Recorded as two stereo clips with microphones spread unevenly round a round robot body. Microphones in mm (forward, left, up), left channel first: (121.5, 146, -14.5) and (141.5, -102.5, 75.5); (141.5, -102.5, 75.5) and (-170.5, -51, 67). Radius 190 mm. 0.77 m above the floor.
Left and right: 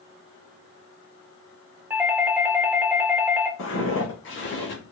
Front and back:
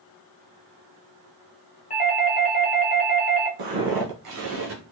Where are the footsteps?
155° left, 1.4 m; by 4.8 s 145° left, 0.8 m.